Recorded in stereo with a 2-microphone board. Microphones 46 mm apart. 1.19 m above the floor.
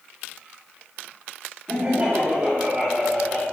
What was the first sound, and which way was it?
Laughter, 40° right (ahead or behind).